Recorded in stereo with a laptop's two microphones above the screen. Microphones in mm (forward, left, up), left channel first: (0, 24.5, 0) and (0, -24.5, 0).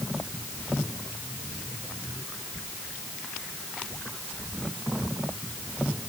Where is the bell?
I don't hear a bell.